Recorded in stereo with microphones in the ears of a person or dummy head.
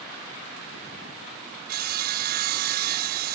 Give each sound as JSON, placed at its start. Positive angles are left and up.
{"t": 1.7, "sound": "sawing", "side_deg": -55}